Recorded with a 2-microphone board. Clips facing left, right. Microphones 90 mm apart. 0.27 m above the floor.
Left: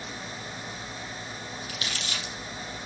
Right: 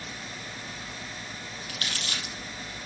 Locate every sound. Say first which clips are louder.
1.7 s crumpling: right 2 dB; 50° right (ahead or behind), 6 m